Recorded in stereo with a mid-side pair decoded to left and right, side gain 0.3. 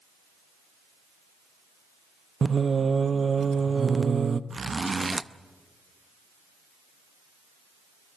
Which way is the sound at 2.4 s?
45° right.